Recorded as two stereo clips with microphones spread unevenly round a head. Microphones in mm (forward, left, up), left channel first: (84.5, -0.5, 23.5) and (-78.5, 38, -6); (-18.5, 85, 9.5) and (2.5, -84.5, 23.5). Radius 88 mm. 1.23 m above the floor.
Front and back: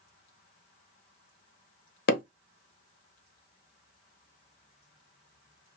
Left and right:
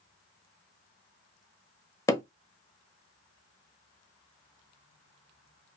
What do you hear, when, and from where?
2.1 s hammering: 25° left, 1.1 m